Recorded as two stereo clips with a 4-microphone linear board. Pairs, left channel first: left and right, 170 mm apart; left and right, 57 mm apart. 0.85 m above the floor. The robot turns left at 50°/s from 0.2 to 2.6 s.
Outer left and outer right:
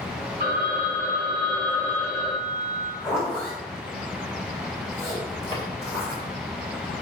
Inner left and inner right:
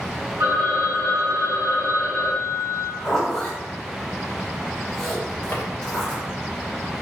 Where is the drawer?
30° left (ahead or behind), 2 m.